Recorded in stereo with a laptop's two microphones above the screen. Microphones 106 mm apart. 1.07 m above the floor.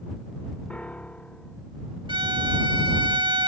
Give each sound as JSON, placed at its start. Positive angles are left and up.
{"t": 0.7, "sound": "a piano", "side_deg": 10}
{"t": 2.1, "sound": "a violin", "side_deg": -50}